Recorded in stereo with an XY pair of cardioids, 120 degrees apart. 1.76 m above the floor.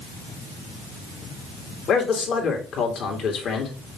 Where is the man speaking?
60° left, 2.5 m.